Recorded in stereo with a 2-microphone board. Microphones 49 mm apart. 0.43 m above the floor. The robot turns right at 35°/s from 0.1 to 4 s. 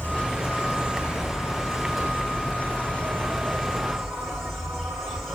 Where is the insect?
40° left, 1.4 m; by 5.4 s straight behind, 1.4 m.